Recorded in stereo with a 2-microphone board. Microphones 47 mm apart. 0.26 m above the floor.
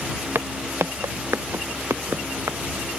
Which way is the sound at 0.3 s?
70° right (ahead or behind).